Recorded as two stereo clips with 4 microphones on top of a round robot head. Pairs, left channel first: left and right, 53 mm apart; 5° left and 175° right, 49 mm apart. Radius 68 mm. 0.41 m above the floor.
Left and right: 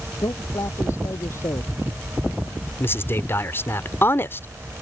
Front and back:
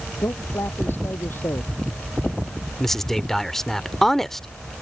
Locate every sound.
0.2 s a man speaking: 50° left
2.8 s a man speaking: 85° left